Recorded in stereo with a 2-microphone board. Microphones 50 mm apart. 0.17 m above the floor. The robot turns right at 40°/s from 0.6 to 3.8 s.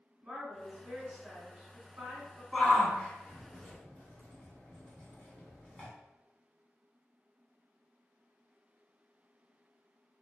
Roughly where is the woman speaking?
Behind right.